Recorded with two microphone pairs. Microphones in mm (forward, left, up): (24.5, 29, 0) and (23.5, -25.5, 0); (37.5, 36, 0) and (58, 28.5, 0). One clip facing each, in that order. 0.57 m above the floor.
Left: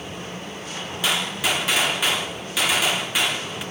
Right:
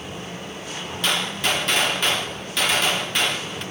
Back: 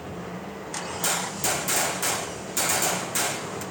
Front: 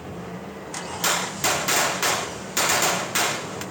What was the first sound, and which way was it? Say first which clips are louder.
A gunshot: even, front 5 dB; 5° left.